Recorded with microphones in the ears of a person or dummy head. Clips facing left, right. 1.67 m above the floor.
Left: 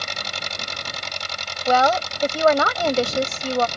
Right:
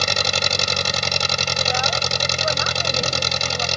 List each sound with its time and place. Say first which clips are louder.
0.0 s an engine running: right 9 dB; 70° right (ahead or behind)
1.7 s a woman speaking: left 10 dB; 80° left